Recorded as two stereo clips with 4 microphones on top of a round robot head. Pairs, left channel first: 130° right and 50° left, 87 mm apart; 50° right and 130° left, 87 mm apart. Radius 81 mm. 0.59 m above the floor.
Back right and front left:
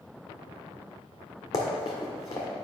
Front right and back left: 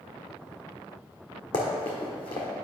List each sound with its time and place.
1.5 s running footsteps: 80° right, 1.6 m